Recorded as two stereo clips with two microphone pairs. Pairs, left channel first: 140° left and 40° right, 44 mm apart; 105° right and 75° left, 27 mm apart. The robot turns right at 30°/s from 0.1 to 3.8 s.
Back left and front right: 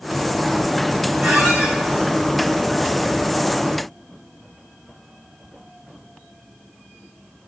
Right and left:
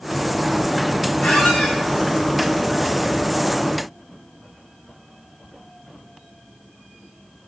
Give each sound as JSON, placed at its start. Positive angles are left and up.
{"t": 1.2, "sound": "a squeak", "azimuth_deg": -110, "distance_m": 1.5}